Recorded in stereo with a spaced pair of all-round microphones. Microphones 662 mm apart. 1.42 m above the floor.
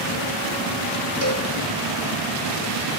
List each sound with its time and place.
1.2 s a cowbell: 20° left (ahead or behind), 2.5 m